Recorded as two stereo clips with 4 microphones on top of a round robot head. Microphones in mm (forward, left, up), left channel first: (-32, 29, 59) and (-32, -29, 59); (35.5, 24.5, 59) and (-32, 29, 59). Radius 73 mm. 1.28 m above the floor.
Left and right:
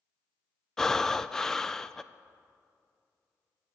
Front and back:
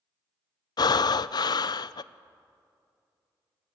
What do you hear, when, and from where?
0.8 s breathing: 5° left, 0.5 m